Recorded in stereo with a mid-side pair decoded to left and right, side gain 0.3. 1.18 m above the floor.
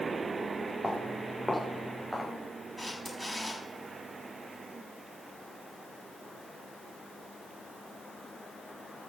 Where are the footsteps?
5° left, 6 m; by 2.3 s 5° right, 7.5 m.